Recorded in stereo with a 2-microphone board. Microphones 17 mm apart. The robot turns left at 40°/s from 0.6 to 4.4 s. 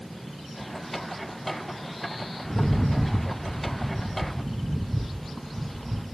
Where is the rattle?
95° left, 1.2 m; by 6.0 s 15° left, 1.2 m.